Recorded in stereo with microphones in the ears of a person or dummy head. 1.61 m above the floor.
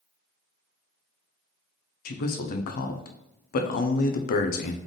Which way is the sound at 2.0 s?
50° left (ahead or behind).